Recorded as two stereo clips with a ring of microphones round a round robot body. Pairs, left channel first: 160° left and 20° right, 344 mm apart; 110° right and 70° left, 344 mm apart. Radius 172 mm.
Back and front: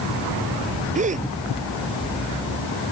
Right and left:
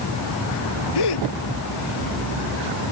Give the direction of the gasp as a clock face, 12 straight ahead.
3 o'clock.